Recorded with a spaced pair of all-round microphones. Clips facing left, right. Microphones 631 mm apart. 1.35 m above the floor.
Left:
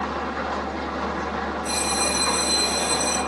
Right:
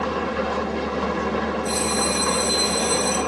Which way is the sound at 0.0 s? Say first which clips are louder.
Right 5 dB; 55° right (ahead or behind).